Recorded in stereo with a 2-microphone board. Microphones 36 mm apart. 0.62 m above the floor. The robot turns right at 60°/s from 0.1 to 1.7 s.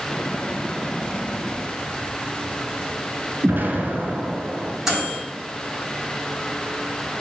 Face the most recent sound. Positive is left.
turn(degrees=-15)  # may be behind; listen again after turning